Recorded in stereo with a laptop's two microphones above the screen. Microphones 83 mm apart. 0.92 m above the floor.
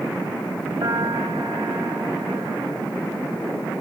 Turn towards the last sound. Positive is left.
turn(degrees=-60)  # may be behind; listen again after turning